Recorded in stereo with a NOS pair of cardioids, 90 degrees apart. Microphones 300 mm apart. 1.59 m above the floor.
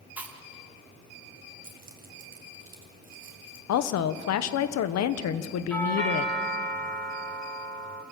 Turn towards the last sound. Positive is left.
turn(degrees=5)